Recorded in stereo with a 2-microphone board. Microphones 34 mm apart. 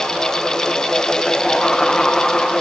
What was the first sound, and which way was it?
Only background noise.